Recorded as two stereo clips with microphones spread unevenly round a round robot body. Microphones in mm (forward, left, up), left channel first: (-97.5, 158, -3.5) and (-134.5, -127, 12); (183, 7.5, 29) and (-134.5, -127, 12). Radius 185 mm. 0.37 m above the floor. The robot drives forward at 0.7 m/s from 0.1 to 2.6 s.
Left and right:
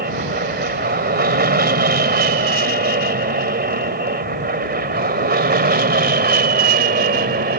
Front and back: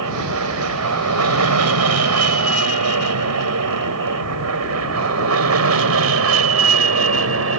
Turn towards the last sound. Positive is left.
turn(degrees=-140)